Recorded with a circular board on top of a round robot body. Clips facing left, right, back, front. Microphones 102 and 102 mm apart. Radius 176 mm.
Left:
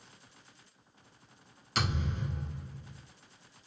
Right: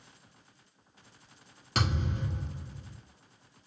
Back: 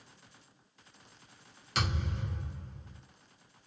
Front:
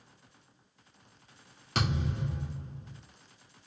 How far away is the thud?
About 2.5 m.